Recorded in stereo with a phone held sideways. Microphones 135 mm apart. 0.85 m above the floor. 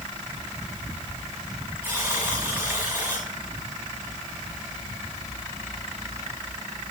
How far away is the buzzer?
About 7 m.